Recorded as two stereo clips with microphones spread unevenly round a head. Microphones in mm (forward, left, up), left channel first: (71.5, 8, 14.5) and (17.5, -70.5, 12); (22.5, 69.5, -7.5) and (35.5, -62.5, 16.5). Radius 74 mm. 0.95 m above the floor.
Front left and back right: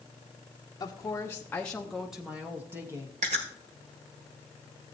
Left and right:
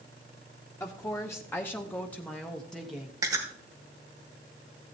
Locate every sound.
0.8 s a woman speaking: 65° left, 0.9 m; by 3.1 s 175° left, 1.1 m
3.2 s chewing: 150° right, 1.2 m